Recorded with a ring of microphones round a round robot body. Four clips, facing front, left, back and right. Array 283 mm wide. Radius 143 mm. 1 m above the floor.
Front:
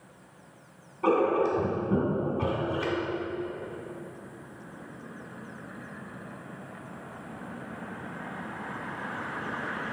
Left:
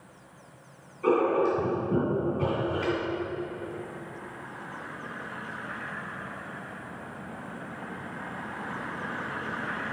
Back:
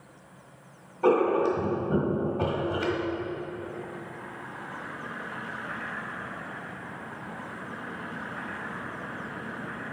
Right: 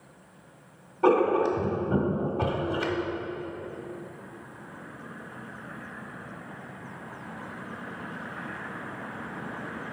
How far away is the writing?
About 1.6 m.